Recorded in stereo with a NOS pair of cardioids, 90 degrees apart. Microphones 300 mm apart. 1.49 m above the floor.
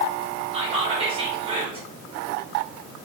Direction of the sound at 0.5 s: 20° right.